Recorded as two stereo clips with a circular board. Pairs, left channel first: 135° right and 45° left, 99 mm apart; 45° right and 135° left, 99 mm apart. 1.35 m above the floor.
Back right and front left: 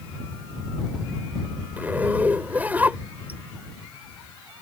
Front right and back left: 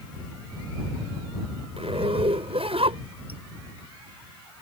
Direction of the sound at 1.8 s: 120° left.